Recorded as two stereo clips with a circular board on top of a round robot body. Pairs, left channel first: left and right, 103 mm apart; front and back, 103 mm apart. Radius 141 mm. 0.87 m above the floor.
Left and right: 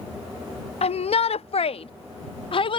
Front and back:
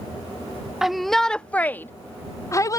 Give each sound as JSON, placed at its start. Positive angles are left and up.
{"t": 0.8, "sound": "a shout", "azimuth_deg": 90}